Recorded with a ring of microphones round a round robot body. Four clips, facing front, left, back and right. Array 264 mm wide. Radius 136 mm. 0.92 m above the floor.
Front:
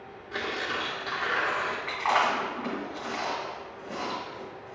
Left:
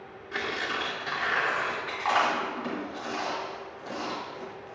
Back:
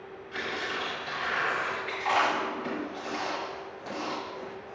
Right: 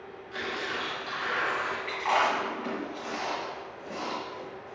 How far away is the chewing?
About 3 m.